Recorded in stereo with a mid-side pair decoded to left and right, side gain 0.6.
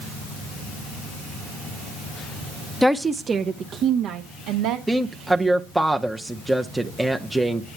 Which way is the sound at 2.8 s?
Straight ahead.